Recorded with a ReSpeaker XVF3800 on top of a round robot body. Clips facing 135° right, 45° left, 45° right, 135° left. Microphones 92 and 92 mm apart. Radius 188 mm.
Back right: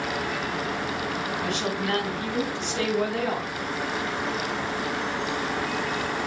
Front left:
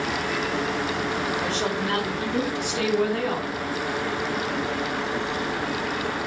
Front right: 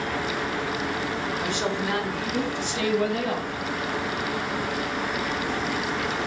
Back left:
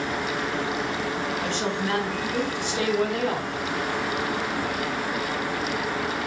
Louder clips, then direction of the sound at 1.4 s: Front left 2 dB, even; 20° left.